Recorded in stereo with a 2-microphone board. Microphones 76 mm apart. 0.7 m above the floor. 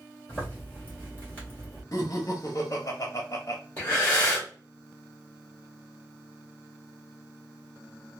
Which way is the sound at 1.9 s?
45° left (ahead or behind).